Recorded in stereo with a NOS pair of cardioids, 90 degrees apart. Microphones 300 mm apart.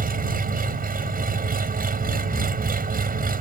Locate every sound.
0.0 s an engine running: 30° right